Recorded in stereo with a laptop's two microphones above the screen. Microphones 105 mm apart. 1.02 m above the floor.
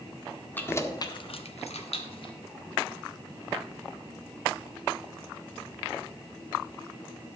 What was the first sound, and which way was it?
Keys jangling, 20° left (ahead or behind).